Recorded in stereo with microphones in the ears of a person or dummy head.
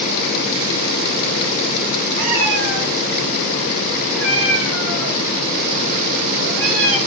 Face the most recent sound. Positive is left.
turn(degrees=-75)  # may be behind; listen again after turning